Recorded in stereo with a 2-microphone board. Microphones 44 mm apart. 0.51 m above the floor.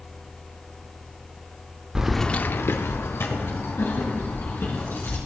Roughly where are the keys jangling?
Centre.